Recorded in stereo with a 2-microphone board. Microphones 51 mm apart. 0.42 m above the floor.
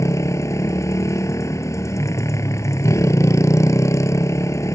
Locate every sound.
0.0 s a motorcycle: 80° left